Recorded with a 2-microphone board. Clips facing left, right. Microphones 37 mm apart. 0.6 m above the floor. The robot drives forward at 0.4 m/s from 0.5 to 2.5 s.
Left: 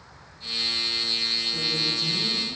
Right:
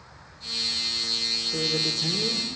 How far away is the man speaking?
About 2 m.